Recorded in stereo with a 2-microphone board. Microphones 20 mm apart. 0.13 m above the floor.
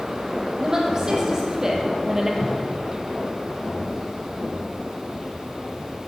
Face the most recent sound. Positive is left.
turn(degrees=50)  # may be behind; listen again after turning